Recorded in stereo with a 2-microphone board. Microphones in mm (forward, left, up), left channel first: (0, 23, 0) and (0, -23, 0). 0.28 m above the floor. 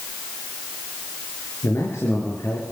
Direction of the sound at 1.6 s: 75° left (ahead or behind).